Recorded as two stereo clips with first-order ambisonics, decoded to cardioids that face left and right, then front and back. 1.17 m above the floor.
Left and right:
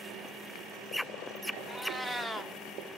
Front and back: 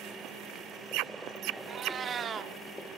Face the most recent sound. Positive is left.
turn(degrees=175)